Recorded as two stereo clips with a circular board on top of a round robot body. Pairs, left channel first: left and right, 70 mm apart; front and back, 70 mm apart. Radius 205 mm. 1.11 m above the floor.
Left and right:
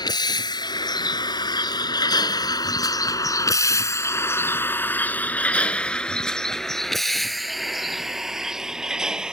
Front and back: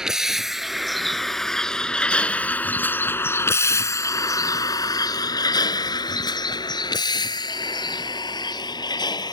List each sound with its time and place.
0.0 s a vehicle: 95° left; by 9.3 s 10° right